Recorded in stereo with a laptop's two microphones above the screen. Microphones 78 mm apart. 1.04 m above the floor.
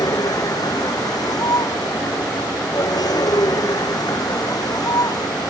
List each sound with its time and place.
0.0 s a vehicle: 55° left (ahead or behind)